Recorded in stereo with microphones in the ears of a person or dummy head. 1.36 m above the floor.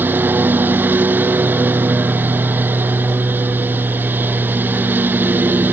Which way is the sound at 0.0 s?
10° right (ahead or behind).